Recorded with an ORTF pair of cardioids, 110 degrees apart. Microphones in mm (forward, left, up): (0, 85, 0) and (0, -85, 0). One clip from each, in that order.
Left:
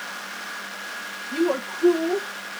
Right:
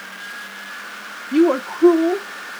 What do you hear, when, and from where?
1.3 s a woman speaking: 40° right, 0.6 m